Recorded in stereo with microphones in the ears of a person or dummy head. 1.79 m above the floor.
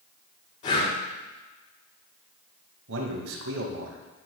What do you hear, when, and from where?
0.6 s breathing: 35° left (ahead or behind), 2 m
2.9 s a man speaking: 75° right (ahead or behind), 2 m